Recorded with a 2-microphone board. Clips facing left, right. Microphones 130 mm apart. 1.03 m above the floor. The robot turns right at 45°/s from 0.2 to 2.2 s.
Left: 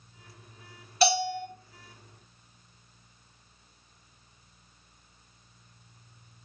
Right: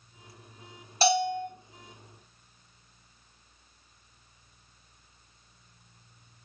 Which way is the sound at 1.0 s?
30° right (ahead or behind).